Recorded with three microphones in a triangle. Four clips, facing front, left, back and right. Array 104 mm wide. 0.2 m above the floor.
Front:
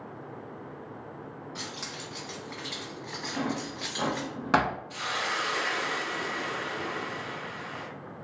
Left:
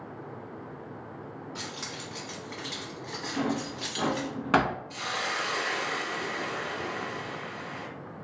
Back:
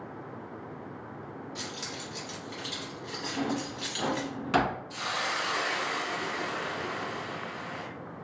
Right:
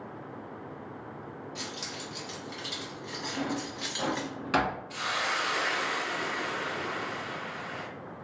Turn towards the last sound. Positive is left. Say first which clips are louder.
# right 1 dB, front 1 dB
turn(degrees=-65)